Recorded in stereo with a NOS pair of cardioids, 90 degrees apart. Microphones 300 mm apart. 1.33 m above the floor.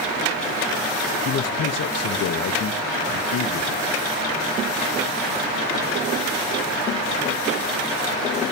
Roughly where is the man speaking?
Ahead left.